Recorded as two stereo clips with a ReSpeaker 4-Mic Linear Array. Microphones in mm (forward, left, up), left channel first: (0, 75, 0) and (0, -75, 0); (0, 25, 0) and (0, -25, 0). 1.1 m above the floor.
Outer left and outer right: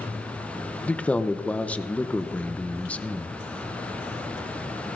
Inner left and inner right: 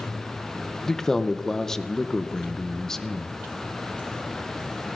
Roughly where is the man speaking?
Centre.